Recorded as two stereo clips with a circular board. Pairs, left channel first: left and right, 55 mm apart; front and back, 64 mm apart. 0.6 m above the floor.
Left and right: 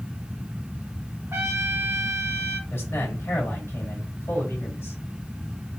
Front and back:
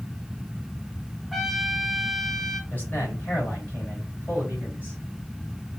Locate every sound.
1.3 s a trumpet: 90° right, 0.8 m
2.7 s a man speaking: 65° left, 3 m